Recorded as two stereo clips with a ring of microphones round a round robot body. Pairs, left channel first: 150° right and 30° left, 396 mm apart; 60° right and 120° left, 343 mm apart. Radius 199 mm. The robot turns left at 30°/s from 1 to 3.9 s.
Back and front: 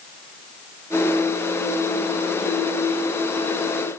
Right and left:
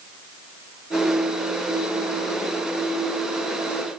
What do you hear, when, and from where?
Only background noise.